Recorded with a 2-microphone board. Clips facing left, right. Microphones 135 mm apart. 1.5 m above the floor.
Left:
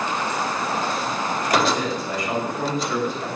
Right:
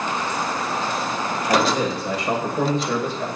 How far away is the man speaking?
About 7.5 m.